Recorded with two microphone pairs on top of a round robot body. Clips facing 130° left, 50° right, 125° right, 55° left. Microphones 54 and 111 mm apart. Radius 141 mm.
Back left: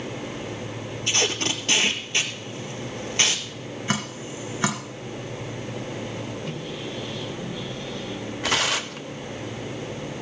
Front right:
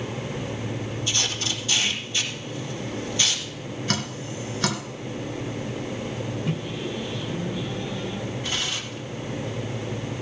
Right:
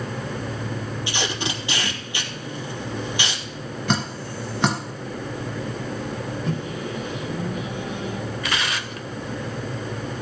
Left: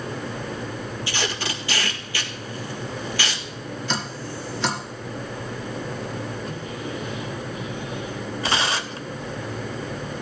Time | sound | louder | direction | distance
1.1 | tape being pulled | back left 6 dB, right 1 dB | 165° left | 1.8 m
3.9 | dripping | back left 2 dB, right 5 dB | 160° right | 2.5 m
6.5 | a microwave | front right 3 dB, right 3 dB | 125° right | 3 m
8.4 | tearing paper | back left 5 dB, left 6 dB | 120° left | 0.8 m